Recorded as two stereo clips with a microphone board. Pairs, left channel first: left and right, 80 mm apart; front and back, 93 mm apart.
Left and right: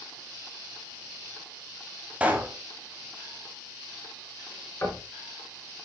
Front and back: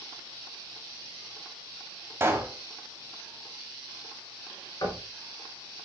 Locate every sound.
2.2 s a pop: 145° right, 1.2 m
4.8 s knocking: 35° left, 3 m